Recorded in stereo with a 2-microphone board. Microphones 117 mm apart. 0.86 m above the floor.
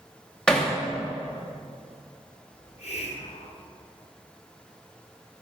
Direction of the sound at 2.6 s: 65° left (ahead or behind).